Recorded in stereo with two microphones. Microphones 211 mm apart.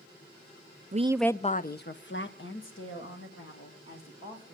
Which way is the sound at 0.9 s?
40° right (ahead or behind).